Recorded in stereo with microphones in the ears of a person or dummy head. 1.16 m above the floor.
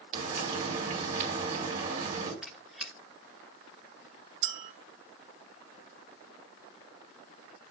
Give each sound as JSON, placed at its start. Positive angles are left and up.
{"t": 0.1, "sound": "frying", "side_deg": -50, "distance_m": 3.0}
{"t": 2.4, "sound": "a squeak", "side_deg": -5, "distance_m": 1.1}
{"t": 4.4, "sound": "a clink", "side_deg": -65, "distance_m": 1.5}